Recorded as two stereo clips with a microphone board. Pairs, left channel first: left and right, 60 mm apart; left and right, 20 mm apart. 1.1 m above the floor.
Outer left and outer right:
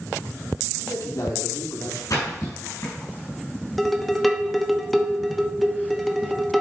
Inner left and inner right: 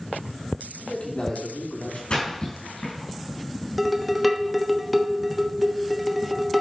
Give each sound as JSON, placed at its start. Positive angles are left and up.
{"t": 0.8, "sound": "a man speaking", "side_deg": 75, "distance_m": 3.0}
{"t": 2.1, "sound": "a splash", "side_deg": 80, "distance_m": 4.5}
{"t": 3.8, "sound": "dishes clattering", "side_deg": 0, "distance_m": 1.0}